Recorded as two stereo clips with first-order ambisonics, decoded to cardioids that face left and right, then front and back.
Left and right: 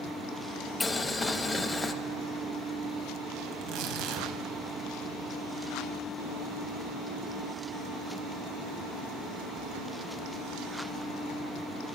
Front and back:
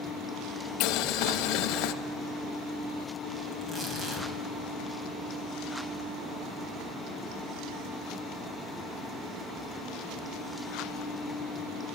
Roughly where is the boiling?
Ahead.